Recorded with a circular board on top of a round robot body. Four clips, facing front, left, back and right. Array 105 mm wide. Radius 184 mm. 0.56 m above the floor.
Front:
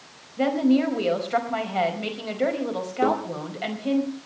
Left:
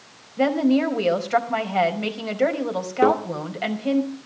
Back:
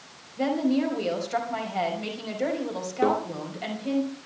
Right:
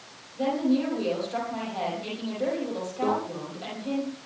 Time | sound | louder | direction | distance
0.4 | a woman speaking | left 6 dB, front 4 dB | 75° left | 5 m
3.0 | a microwave | left 9 dB, front 1 dB | 95° left | 2 m